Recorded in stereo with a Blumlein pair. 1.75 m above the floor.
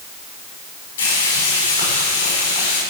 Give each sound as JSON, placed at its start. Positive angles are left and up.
{"t": 1.0, "sound": "frying", "azimuth_deg": 60, "distance_m": 7.0}